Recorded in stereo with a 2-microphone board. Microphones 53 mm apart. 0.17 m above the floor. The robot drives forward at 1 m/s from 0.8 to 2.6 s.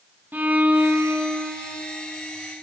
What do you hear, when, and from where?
0.3 s a violin: 35° right (ahead or behind), 1.5 m; by 1.8 s 25° right (ahead or behind), 1.9 m